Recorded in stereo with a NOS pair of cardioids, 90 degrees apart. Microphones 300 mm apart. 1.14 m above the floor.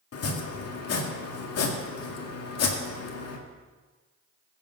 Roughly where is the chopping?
Ahead left.